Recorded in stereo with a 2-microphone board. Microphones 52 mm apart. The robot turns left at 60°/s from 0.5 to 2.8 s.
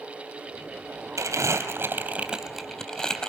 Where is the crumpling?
75° right (ahead or behind), 3 m; by 3.3 s 15° left (ahead or behind), 3 m.